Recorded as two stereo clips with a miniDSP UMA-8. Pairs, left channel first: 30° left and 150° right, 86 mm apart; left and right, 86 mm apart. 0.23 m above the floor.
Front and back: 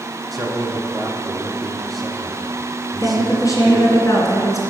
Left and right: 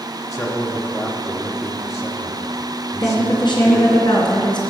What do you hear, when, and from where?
0.3 s a man speaking: 120° left, 1.1 m
3.0 s a woman speaking: 75° left, 2.5 m